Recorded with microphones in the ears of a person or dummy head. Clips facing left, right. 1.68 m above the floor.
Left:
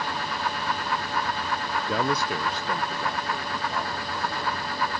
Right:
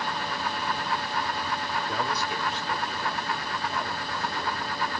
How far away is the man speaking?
About 0.8 m.